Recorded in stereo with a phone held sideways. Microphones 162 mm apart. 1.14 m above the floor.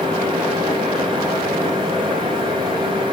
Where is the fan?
30° right (ahead or behind), 2 m.